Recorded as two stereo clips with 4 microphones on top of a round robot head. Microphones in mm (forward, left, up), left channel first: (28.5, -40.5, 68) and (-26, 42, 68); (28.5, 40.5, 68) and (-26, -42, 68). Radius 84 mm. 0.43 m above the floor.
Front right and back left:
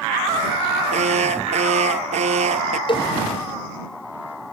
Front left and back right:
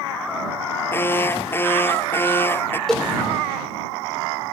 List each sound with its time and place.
0.9 s an alarm: 125° left
2.9 s a cowbell: 30° right